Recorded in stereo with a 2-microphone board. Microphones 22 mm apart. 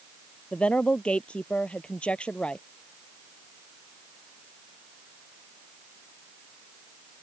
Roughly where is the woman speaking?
Left.